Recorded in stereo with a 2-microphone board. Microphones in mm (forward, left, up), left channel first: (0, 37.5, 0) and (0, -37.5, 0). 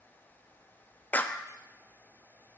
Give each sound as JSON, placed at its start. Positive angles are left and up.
{"t": 1.1, "sound": "a clap", "side_deg": 25, "distance_m": 0.5}